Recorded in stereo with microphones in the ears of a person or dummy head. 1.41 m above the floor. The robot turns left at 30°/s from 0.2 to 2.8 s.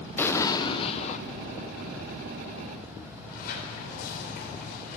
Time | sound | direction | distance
0.2 | an explosion | 15° left (ahead or behind) | 0.8 m
3.1 | a sliding door | 50° left (ahead or behind) | 4.5 m